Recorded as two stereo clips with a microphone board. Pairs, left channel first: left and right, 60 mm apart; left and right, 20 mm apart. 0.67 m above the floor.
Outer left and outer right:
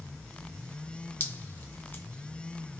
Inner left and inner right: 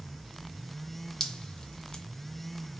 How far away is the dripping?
About 0.8 m.